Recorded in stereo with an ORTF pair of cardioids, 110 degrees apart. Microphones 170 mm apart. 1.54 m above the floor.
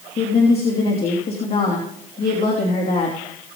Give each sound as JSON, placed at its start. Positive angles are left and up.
{"t": 0.2, "sound": "a woman speaking", "azimuth_deg": 35, "distance_m": 3.0}